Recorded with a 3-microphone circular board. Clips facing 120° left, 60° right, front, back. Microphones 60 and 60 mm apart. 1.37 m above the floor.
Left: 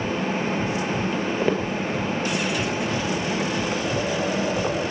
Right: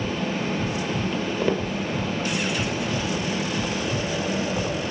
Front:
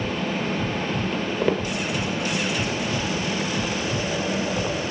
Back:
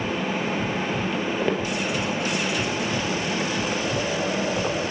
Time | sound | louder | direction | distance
1.1 | footsteps | left 1 dB, front 2 dB | 85° left | 1.4 m